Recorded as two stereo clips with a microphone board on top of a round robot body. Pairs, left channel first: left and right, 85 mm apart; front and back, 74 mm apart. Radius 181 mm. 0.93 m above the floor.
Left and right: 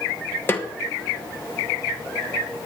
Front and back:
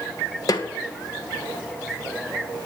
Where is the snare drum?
25° left, 1.6 m.